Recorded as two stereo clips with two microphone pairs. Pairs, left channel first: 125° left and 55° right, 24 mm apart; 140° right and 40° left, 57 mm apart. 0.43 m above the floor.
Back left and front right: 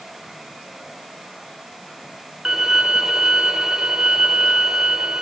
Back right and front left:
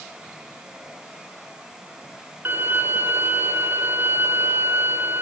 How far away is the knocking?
I don't hear knocking.